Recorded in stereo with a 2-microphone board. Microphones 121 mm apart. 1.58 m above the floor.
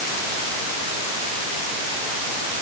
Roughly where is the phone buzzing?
I don't hear a phone buzzing.